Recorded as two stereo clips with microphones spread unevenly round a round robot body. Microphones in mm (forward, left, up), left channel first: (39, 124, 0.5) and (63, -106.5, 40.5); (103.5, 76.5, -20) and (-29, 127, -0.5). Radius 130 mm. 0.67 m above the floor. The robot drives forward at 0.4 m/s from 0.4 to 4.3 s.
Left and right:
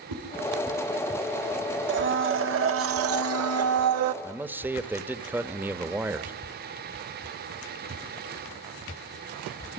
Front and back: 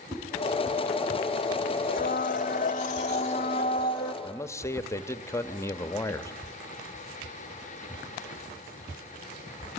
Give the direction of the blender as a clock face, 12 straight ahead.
1 o'clock.